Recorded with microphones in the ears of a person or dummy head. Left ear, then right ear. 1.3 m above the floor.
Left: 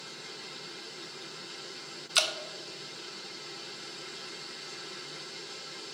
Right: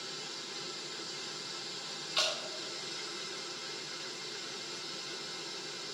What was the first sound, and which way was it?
Dripping, 65° left (ahead or behind).